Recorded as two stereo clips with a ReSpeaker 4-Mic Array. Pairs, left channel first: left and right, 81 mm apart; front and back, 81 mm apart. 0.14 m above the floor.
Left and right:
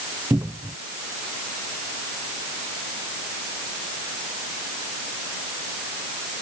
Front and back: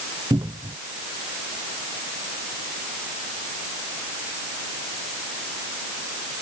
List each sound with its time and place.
0.3 s a cupboard door: 145° right